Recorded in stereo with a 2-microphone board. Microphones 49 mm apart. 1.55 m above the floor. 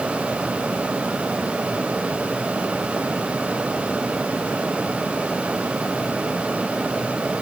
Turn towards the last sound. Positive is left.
No sound to turn to.